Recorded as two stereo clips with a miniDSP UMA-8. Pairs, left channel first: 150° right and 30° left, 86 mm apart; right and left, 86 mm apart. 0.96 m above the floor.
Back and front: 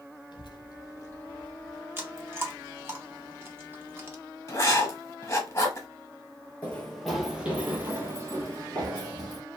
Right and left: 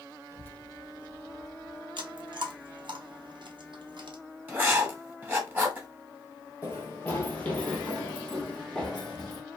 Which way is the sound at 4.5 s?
155° left.